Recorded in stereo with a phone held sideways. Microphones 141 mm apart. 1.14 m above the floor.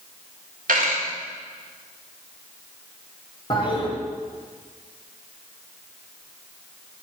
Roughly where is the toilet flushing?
Left.